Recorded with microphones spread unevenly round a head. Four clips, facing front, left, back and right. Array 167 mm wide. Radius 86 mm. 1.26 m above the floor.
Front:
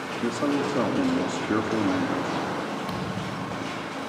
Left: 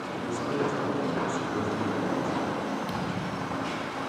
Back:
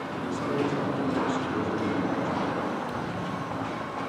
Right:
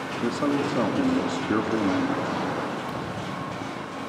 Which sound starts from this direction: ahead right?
A man speaking, at 0.2 s.